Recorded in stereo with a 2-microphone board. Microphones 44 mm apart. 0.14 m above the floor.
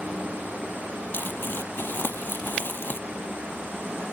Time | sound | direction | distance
1.1 | crumpling | 55° left (ahead or behind) | ?